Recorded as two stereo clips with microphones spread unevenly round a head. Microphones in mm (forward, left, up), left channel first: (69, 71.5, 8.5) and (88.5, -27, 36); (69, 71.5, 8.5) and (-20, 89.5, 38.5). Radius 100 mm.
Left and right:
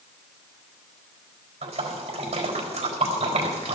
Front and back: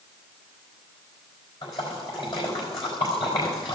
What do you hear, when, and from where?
1.6 s a splash: 60° right, 4 m